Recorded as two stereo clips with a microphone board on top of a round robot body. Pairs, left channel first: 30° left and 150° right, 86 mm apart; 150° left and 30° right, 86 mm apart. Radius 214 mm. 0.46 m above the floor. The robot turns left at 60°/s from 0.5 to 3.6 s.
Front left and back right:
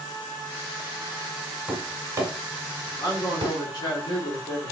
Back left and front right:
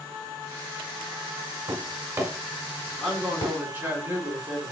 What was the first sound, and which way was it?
Tapping, 70° right.